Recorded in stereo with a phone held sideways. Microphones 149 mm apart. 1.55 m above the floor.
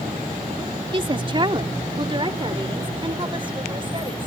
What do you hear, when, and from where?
0.9 s a woman speaking: 35° right (ahead or behind)